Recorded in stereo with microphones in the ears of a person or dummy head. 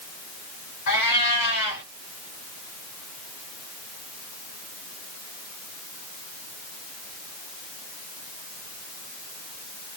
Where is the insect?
No insect in this recording.